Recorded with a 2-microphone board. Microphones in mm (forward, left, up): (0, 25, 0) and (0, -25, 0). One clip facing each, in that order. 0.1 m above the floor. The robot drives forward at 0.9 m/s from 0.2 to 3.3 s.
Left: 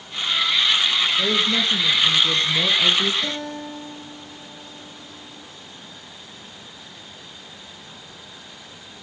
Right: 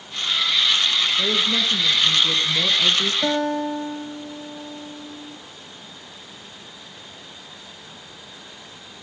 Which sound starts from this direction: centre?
A woman speaking, at 1.2 s.